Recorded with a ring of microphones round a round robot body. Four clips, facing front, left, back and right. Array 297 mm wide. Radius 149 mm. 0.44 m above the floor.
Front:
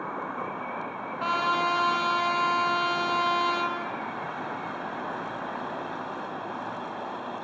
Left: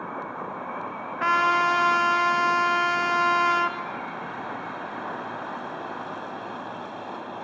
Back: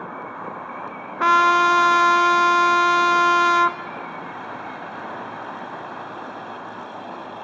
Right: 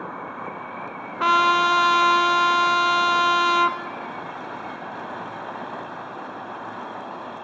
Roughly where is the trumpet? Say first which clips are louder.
Right 3 dB, back 11 dB; behind.